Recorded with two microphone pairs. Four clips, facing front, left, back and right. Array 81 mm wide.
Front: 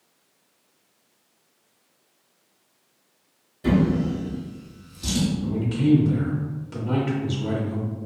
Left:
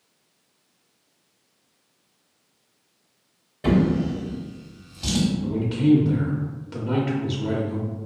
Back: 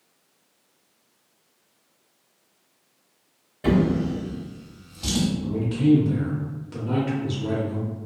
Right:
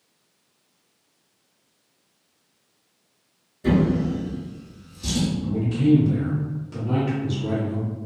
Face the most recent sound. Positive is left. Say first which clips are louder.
# right 1 dB, back 3 dB
turn(degrees=90)